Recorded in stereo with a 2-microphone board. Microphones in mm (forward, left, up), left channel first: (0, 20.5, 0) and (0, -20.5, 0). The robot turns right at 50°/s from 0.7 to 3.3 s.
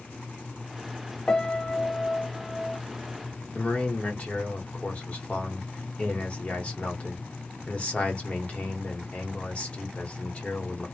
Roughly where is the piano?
Left.